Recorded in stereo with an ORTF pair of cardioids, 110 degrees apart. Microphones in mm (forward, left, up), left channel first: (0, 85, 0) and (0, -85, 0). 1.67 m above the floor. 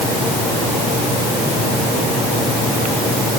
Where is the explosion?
I don't hear an explosion.